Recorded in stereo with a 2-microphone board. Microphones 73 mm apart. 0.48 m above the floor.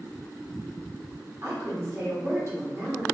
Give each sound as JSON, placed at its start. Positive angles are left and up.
{"t": 1.4, "sound": "a woman speaking", "side_deg": -40, "distance_m": 1.3}